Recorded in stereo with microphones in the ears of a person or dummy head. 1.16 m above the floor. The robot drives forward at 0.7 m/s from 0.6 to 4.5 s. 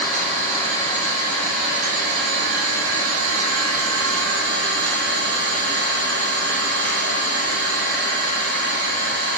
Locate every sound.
0.0 s an engine running: 30° right (ahead or behind), 2.5 m; by 9.4 s 70° right (ahead or behind), 1.5 m